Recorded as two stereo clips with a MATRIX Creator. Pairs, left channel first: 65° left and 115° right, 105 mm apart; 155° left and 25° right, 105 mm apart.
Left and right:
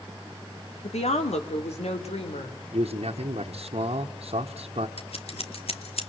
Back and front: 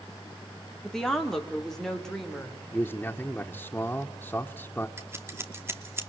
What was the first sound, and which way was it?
A woman speaking, 75° left.